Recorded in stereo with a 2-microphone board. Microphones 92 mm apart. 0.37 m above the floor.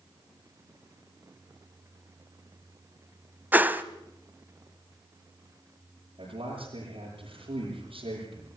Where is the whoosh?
20° right (ahead or behind), 0.9 m.